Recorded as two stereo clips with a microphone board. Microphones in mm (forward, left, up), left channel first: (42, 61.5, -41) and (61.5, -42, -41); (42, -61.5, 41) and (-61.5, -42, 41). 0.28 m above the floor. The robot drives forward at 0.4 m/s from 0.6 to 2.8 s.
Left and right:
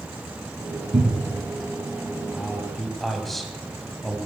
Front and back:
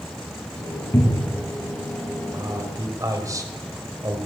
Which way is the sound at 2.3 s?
170° right.